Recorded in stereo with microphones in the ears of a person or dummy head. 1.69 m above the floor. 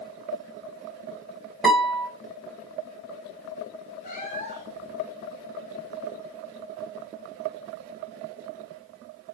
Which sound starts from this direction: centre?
A guitar, at 1.6 s.